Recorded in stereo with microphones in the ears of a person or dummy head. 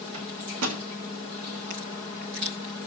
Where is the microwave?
80° right, 1.5 m.